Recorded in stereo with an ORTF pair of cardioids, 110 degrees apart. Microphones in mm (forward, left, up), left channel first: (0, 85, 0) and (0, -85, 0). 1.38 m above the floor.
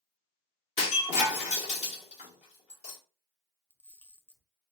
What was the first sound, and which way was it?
Breaking glass, 45° left.